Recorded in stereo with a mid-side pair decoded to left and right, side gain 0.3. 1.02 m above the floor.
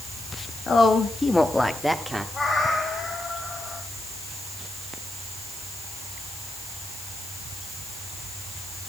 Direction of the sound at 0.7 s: 70° left.